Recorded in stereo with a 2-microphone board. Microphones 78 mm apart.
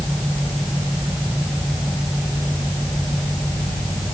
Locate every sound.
Only background noise.